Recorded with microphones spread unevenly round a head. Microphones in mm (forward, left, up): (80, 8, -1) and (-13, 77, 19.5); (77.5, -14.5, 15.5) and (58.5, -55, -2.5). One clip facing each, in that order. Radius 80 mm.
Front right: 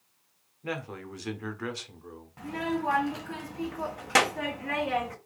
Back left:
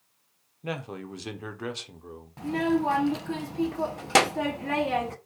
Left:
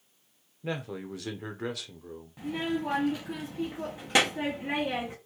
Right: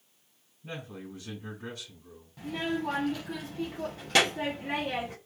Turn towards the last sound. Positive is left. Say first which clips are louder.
# back left 6 dB, left 1 dB
turn(degrees=105)